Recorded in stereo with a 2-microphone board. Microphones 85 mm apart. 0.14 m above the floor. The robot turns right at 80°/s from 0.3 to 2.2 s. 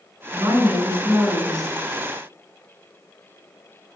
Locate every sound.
0.3 s a woman speaking: 85° right, 1.9 m; by 1.8 s 30° left, 1.9 m